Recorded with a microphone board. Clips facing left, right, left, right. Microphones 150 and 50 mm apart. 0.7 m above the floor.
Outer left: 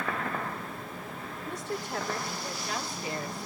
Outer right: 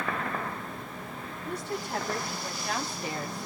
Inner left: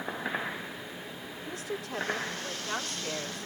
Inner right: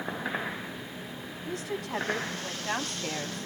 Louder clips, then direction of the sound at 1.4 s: Outer right 1 dB, inner right 3 dB; 75° right (ahead or behind).